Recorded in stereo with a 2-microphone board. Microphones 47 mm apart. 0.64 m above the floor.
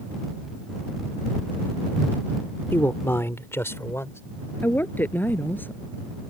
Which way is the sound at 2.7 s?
60° left (ahead or behind).